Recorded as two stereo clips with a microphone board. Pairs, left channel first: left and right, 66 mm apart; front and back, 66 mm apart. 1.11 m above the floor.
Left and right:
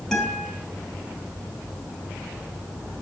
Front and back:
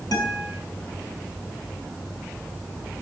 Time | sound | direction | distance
0.1 | a guitar | 10° left | 5.5 m